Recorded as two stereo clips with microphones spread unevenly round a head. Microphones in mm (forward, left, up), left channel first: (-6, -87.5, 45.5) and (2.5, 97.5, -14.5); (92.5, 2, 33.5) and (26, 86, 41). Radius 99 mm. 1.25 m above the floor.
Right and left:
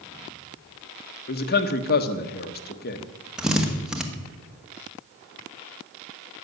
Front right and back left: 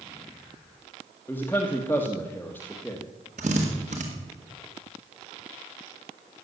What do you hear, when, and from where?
1.3 s a man speaking: 130° right, 1.1 m
3.4 s a drill: 175° left, 1.4 m